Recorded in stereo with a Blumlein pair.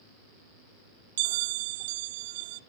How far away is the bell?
About 0.5 m.